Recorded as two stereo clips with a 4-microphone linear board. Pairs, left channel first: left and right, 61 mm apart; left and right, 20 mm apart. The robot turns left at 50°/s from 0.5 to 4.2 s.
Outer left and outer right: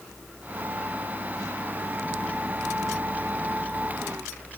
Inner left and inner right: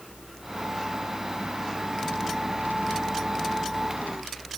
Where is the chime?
I don't hear a chime.